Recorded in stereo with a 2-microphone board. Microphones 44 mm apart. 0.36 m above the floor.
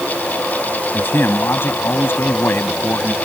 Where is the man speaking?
50° left (ahead or behind).